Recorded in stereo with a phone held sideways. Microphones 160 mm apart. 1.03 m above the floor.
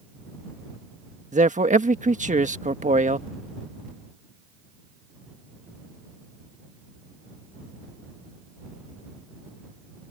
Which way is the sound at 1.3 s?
50° right (ahead or behind).